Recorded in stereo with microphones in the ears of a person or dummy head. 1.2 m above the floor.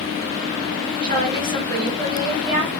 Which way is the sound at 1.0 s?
35° right (ahead or behind).